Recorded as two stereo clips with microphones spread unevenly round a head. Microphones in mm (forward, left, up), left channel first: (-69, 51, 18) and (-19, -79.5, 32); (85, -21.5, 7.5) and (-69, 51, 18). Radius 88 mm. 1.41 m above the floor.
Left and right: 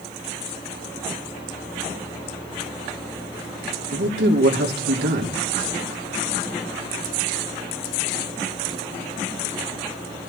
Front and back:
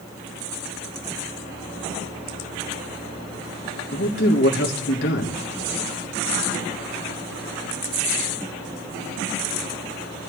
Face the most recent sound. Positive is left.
turn(degrees=-60)